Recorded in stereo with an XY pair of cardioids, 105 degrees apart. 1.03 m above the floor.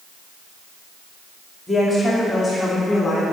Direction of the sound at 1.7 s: 15° left.